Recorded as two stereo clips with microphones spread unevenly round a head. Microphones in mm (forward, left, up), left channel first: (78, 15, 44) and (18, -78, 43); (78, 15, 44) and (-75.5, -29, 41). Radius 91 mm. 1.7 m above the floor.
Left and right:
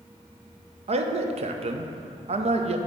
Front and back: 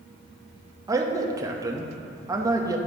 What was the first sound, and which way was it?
A man speaking, 95° right.